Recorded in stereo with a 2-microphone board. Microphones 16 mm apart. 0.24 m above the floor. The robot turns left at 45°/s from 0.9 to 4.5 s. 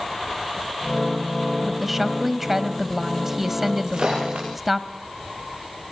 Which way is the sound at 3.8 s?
60° right (ahead or behind).